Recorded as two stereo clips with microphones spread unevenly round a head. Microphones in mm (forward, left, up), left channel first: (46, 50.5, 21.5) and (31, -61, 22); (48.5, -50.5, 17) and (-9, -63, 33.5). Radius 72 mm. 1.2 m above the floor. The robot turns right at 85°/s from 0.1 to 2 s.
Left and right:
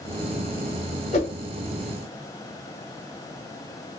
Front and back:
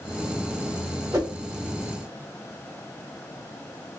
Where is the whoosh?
130° left, 1.0 m; by 1.3 s 145° left, 1.0 m.